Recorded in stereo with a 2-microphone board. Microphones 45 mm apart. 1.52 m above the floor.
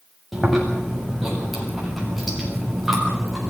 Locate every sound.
0.3 s chewing: centre (ahead or behind), 7.5 m